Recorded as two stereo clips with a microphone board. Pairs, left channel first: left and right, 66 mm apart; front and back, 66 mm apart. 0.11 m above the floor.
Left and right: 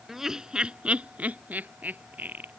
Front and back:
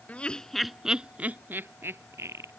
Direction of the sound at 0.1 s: 15° right.